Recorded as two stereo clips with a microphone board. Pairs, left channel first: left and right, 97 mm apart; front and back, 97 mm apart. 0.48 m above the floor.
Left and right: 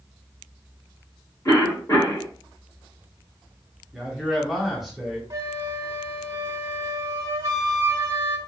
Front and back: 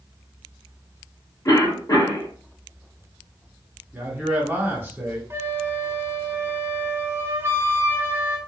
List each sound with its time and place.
1.4 s a cough: 45° left, 1.5 m
3.9 s a man speaking: 175° right, 0.9 m
5.3 s a flute: 125° right, 0.9 m